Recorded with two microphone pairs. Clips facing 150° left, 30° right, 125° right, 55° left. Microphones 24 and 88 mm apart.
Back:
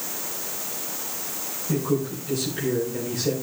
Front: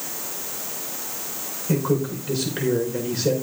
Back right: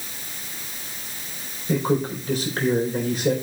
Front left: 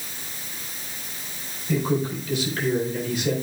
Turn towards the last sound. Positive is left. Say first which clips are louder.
# front 2 dB, back right 2 dB
turn(degrees=-75)